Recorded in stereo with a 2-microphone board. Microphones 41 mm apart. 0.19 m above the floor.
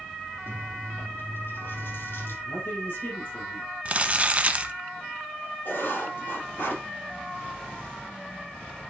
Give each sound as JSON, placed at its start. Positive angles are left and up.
{"t": 0.5, "sound": "chewing", "side_deg": 70, "distance_m": 4.5}
{"t": 2.5, "sound": "a man speaking", "side_deg": 60, "distance_m": 4.5}
{"t": 3.9, "sound": "crumpling", "side_deg": -30, "distance_m": 0.8}
{"t": 5.7, "sound": "writing", "side_deg": 60, "distance_m": 4.5}